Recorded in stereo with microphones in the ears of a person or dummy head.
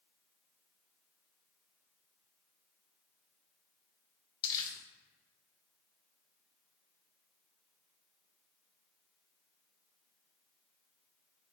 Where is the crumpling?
20° left (ahead or behind), 0.6 m.